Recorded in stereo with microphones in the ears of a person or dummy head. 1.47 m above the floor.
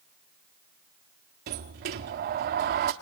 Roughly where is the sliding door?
Right.